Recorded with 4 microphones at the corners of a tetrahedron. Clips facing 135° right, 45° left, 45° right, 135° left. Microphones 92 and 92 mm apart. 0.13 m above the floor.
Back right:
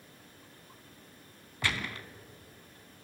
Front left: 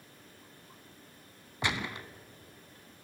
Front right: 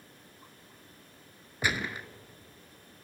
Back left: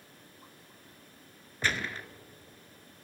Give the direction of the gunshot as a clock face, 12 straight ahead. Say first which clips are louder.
Front left 1 dB, front right 1 dB; 12 o'clock.